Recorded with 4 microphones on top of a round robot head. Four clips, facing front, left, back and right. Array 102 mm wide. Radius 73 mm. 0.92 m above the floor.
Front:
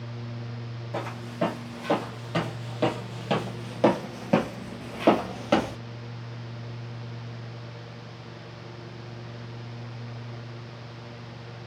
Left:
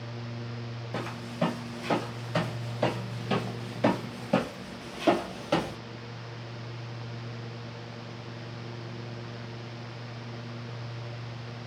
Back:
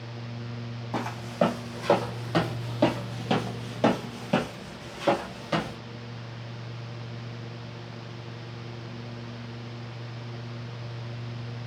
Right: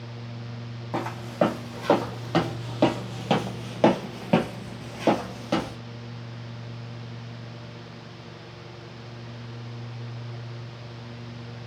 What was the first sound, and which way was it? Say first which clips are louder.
Footsteps: right 8 dB, back 4 dB; 120° right.